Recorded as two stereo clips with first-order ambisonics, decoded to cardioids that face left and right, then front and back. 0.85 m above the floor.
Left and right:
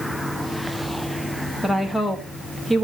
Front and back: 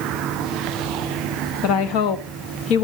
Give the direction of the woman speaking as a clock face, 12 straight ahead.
12 o'clock.